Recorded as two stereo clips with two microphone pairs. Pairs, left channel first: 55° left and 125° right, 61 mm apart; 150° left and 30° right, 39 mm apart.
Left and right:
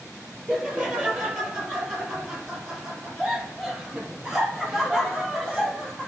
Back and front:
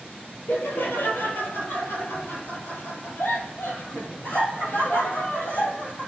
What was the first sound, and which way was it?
Laughter, 145° left.